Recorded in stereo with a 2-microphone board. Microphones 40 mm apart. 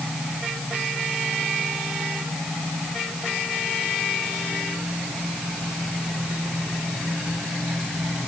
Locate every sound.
Only background noise.